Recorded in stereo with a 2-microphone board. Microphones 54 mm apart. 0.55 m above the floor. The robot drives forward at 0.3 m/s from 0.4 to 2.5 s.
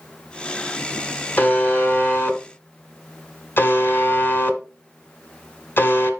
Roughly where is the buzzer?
Left.